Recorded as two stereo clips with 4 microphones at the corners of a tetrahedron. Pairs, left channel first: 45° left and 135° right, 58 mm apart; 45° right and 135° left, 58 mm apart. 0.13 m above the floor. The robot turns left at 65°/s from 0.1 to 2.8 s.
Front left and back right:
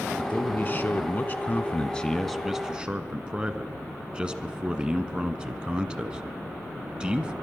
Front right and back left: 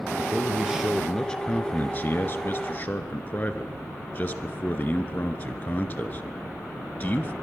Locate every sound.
0.2 s a man speaking: 95° left, 1.4 m; by 7.3 s 75° right, 1.4 m